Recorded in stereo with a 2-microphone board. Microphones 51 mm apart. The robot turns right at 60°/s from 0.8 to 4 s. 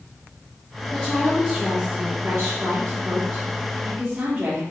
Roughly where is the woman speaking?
Behind left.